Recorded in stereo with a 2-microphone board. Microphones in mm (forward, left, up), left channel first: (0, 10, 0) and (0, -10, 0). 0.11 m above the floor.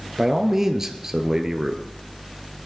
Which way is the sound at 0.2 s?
25° right (ahead or behind).